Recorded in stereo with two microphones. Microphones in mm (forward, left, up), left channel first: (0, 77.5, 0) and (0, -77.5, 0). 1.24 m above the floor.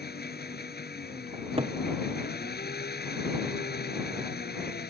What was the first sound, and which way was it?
An engine running, 80° left.